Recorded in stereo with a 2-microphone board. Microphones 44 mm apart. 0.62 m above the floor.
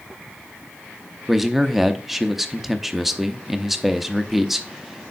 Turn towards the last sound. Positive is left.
turn(degrees=-5)  # may be behind; listen again after turning